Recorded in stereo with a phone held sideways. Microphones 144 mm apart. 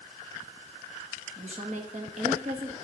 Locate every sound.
1.4 s a woman speaking: 55° right (ahead or behind), 1.7 m